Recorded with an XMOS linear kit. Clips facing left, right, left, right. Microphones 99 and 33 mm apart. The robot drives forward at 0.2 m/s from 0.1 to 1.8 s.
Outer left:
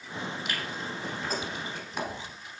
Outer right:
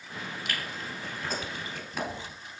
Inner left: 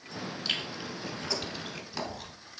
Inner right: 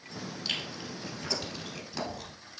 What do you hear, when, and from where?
0.5 s chewing: 5° left (ahead or behind), 1.8 m